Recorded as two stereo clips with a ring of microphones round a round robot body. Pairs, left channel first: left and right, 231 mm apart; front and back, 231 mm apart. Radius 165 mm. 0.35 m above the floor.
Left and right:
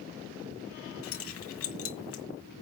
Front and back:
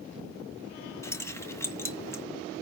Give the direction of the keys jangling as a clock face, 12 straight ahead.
9 o'clock.